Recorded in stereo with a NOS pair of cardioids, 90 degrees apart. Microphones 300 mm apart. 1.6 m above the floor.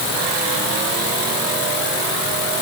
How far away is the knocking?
I don't hear knocking.